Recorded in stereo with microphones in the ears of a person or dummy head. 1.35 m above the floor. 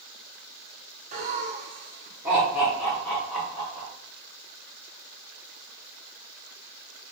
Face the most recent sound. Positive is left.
turn(degrees=5)  # may be behind; listen again after turning